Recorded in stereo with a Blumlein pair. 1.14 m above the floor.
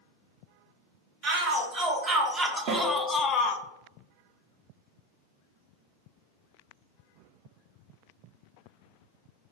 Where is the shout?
30° right, 1.4 m; by 3.6 s 45° left, 0.5 m.